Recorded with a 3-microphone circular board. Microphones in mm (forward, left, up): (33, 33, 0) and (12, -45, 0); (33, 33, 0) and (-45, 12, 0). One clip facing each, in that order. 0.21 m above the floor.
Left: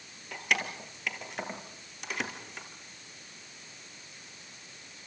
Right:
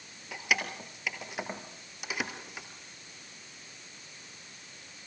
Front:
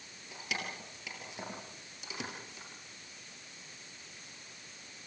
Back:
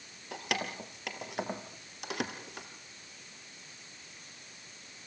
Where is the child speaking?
I don't hear a child speaking.